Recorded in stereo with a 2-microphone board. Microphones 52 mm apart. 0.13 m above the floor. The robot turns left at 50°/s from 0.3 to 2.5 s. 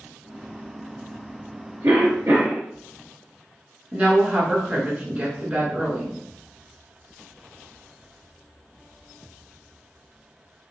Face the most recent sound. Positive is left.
turn(degrees=-25)  # may be behind; listen again after turning